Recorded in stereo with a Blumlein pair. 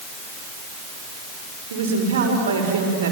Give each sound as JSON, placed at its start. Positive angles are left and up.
{"t": 1.7, "sound": "a woman speaking", "azimuth_deg": -60, "distance_m": 5.5}